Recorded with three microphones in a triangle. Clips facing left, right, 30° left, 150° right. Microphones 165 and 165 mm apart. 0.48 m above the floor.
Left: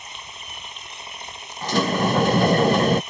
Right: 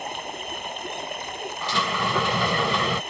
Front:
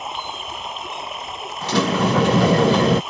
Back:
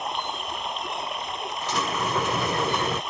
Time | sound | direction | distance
0.0 | running water | 55° right | ?
1.6 | a sliding door | 45° left | ?